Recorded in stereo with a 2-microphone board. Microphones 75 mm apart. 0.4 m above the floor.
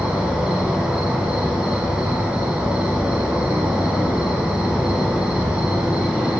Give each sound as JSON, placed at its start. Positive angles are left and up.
{"t": 0.0, "sound": "an insect", "side_deg": -15, "distance_m": 2.5}